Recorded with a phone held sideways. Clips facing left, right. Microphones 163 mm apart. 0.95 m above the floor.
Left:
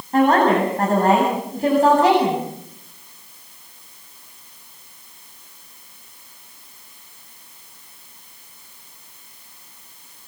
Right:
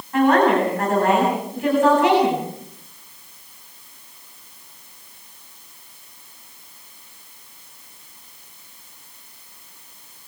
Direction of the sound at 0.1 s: 40° left (ahead or behind).